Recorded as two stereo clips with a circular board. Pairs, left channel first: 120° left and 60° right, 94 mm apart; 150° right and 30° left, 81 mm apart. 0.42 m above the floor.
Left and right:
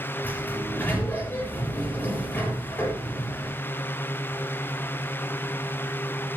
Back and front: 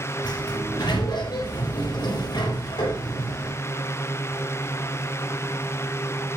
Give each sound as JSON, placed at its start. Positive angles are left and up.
{"t": 0.2, "sound": "a sliding door", "azimuth_deg": -170, "distance_m": 7.0}